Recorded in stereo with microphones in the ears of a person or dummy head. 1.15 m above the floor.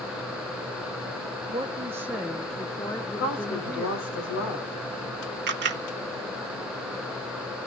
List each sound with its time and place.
1.5 s a woman speaking: 25° right (ahead or behind), 0.9 m; by 4.2 s 25° left (ahead or behind), 2 m
3.2 s a woman speaking: 70° left (ahead or behind), 5 m
5.5 s a camera shutter: 55° right (ahead or behind), 0.9 m